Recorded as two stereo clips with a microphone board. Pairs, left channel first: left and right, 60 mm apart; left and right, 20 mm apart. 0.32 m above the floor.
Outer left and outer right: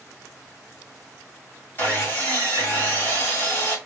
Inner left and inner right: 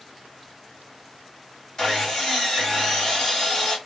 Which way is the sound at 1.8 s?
35° left (ahead or behind).